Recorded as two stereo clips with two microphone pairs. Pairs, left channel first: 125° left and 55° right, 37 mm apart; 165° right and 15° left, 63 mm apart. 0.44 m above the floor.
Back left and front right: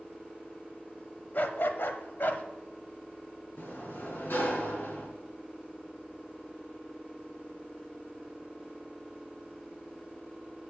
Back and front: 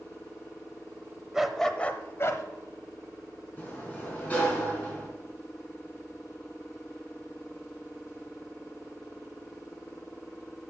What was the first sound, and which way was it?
A dog barking, 95° left.